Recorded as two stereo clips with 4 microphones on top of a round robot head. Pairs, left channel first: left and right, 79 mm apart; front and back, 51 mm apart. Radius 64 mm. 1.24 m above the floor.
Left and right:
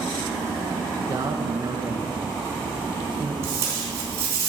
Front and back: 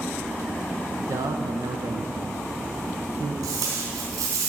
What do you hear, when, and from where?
1.0 s a man speaking: 150° right, 0.6 m
3.4 s tape being pulled: 150° right, 3.5 m